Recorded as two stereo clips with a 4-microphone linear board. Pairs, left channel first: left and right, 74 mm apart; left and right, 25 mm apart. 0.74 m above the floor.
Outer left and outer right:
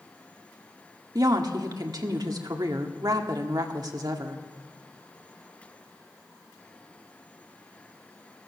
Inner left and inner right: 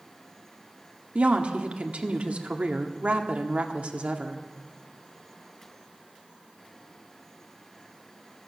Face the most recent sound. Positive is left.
turn(degrees=-60)  # may be behind; listen again after turning